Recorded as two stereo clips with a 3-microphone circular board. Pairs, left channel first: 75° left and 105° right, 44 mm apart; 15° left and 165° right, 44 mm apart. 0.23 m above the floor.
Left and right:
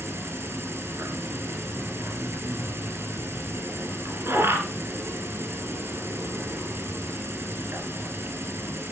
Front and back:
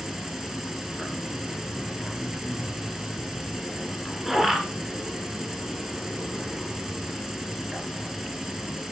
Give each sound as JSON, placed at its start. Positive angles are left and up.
{"t": 0.0, "sound": "an insect", "azimuth_deg": -85, "distance_m": 1.8}